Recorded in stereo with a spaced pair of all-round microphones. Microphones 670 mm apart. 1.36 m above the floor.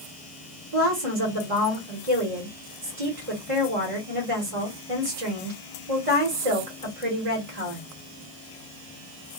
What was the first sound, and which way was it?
A woman speaking, 60° right (ahead or behind).